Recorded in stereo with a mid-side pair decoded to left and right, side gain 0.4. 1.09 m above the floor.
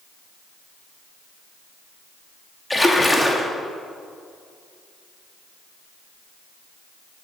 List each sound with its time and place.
2.7 s a splash: 15° left, 2.5 m